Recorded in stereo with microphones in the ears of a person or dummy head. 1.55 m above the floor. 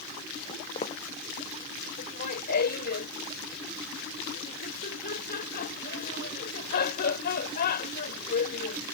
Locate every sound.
0.5 s footsteps: 40° left (ahead or behind)
2.0 s laughter: 55° left (ahead or behind)